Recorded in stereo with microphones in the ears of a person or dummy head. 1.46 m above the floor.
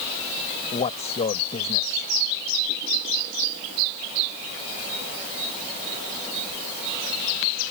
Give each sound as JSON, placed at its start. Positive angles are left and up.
{"t": 0.7, "sound": "a man speaking", "side_deg": 40}